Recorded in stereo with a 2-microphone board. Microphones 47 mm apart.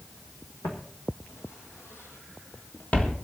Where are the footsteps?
65° left (ahead or behind), 2.5 m; by 3.1 s 20° left (ahead or behind), 1.5 m.